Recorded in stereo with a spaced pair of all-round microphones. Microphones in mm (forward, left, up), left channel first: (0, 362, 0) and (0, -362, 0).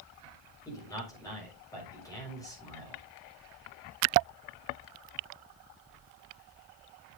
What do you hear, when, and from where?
0.7 s a man speaking: 5° left (ahead or behind), 6.5 m